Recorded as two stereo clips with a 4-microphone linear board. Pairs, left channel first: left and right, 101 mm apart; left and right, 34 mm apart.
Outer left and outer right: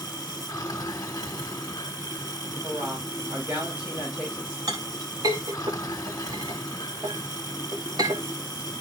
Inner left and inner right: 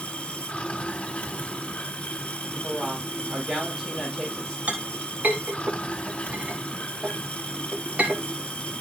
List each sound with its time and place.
0.0 s running water: 40° left (ahead or behind), 1.1 m
2.6 s a woman speaking: 10° right (ahead or behind), 6 m
4.7 s a clink: 40° right (ahead or behind), 3 m